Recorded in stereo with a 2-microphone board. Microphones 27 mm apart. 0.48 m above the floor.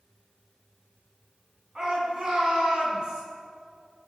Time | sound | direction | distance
1.8 | a shout | 30° right (ahead or behind) | 5 m